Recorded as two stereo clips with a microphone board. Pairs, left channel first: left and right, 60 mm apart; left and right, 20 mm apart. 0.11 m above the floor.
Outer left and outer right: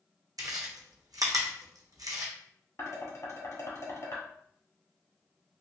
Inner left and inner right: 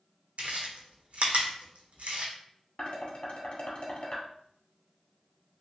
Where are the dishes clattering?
50° left (ahead or behind), 1.6 m.